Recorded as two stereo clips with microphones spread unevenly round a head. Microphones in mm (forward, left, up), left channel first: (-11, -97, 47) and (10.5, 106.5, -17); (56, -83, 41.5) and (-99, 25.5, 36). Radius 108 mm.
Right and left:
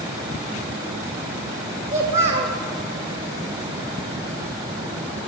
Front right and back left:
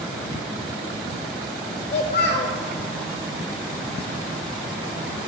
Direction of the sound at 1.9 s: 25° left.